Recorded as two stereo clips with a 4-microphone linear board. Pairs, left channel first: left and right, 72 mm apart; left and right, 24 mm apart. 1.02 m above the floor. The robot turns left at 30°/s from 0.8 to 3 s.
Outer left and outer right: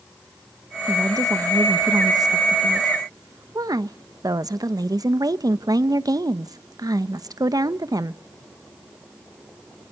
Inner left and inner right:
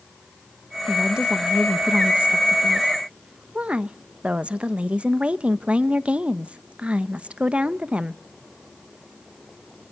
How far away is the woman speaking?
About 0.9 m.